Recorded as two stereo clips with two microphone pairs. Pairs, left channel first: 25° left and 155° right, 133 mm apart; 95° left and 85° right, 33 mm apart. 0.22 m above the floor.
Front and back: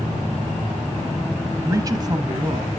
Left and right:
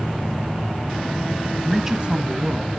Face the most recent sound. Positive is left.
turn(degrees=-95)